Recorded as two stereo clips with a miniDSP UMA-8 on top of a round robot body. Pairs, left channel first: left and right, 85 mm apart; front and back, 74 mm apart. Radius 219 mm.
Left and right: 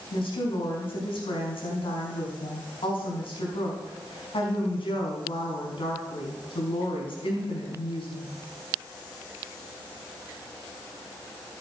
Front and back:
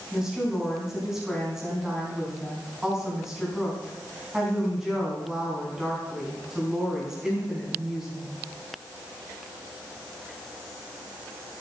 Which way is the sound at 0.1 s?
95° left.